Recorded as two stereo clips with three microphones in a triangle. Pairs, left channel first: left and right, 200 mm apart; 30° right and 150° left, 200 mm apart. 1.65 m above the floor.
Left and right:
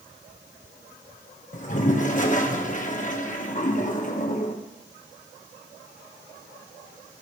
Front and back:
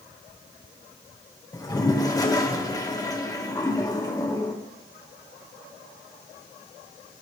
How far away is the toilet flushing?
About 1.4 m.